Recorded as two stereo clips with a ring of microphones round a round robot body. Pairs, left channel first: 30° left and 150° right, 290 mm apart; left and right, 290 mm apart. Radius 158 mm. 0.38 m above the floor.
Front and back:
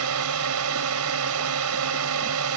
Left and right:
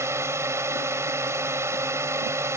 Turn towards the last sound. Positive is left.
turn(degrees=-170)